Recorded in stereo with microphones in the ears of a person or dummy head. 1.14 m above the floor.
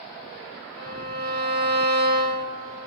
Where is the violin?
85° right, 4 m.